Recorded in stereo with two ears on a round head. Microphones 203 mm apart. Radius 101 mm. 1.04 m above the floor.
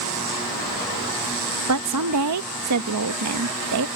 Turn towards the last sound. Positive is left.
turn(degrees=-85)